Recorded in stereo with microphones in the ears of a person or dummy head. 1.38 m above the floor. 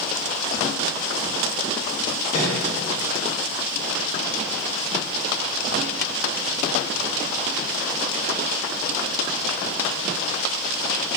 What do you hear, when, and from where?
2.3 s a microwave: 25° left (ahead or behind), 1.7 m